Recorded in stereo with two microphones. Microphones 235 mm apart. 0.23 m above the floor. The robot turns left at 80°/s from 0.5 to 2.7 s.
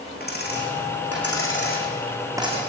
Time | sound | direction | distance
0.2 | a dropped coin | 45° left (ahead or behind) | 5.5 m